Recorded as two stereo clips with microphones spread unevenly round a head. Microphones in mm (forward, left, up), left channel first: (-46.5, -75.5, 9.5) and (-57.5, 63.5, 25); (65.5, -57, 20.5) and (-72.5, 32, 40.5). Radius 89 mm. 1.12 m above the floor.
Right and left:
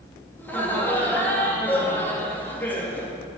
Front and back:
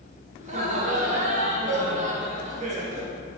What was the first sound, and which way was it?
Laughter, 160° right.